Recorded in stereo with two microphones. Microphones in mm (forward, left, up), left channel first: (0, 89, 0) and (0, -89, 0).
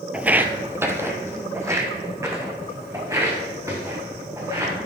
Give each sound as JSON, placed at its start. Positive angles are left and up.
{"t": 0.1, "sound": "footsteps", "side_deg": -5, "distance_m": 0.5}